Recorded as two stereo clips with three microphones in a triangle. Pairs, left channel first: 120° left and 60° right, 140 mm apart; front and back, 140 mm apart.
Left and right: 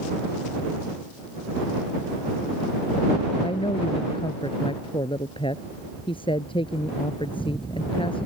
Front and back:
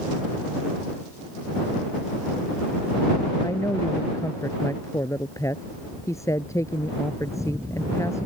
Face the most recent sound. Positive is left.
turn(degrees=70)